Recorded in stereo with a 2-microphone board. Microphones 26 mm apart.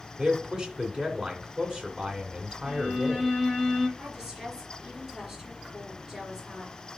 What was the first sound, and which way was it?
A man speaking, 30° right (ahead or behind).